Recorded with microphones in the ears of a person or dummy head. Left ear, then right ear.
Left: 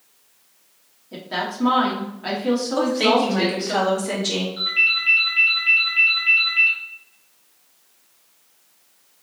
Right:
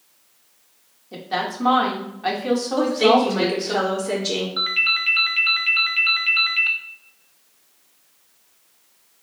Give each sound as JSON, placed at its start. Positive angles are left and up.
{"t": 1.1, "sound": "a woman speaking", "side_deg": -20, "distance_m": 1.1}
{"t": 2.8, "sound": "a woman speaking", "side_deg": 50, "distance_m": 1.7}
{"t": 4.6, "sound": "a ringtone", "side_deg": -45, "distance_m": 0.6}